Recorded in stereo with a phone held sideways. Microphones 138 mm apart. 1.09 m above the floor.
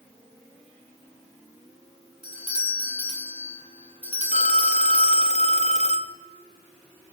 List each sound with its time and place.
2.2 s a doorbell: 45° left (ahead or behind), 6.5 m
4.3 s a phone ringing: 55° left (ahead or behind), 1.6 m